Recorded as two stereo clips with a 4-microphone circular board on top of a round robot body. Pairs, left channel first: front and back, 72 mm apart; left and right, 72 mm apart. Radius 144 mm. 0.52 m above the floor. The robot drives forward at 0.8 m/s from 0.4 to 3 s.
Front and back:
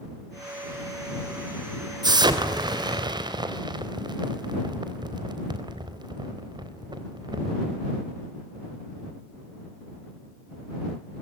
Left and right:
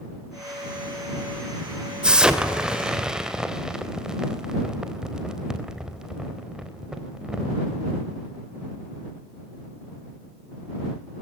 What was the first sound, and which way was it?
An explosion, 165° right.